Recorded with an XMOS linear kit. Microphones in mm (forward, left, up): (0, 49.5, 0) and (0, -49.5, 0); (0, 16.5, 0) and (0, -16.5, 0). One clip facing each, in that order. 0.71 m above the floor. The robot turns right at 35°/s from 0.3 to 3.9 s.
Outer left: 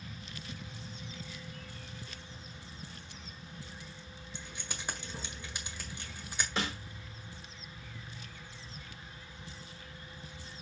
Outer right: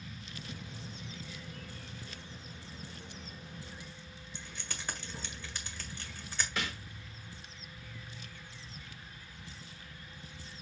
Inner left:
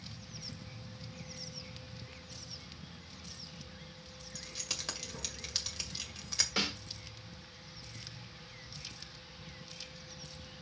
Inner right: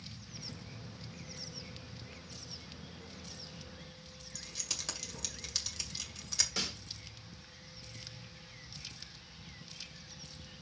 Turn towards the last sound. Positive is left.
turn(degrees=30)  # may be behind; listen again after turning